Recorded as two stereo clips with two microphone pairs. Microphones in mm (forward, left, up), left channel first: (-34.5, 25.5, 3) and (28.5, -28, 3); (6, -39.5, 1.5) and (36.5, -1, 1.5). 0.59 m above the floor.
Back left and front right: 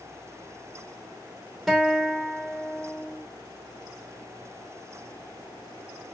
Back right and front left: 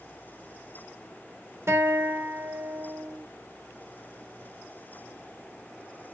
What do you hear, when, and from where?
1.7 s a guitar: 50° left, 1.5 m